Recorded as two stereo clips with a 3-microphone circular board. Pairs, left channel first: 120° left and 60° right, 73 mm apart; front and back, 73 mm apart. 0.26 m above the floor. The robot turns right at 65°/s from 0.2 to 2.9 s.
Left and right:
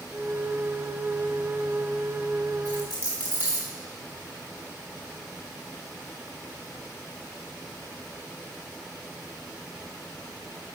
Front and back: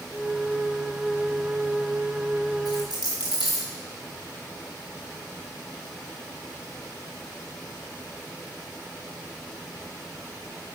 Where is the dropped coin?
20° right, 2.5 m; by 3.7 s straight ahead, 2.5 m.